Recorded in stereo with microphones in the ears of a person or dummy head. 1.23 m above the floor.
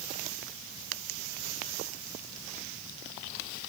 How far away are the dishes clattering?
I don't hear dishes clattering.